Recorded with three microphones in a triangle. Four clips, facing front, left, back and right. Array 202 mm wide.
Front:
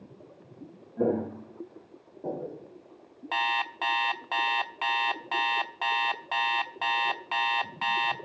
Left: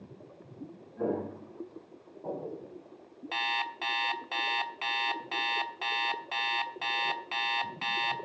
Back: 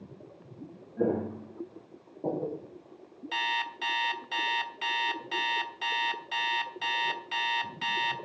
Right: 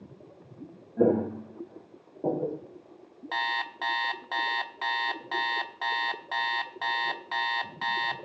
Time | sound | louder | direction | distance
1.0 | footsteps | right 9 dB, front 2 dB | 85° right | 4 m
3.3 | an alarm clock | right 2 dB, front 4 dB | 10° right | 1.1 m